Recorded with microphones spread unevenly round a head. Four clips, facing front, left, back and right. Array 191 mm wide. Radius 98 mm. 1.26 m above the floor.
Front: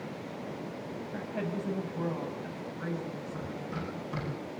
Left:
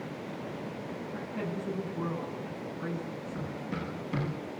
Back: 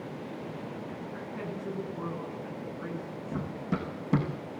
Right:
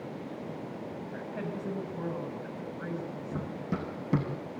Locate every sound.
1.1 s a woman speaking: 25° right, 8.5 m
3.3 s running footsteps: 135° right, 4.5 m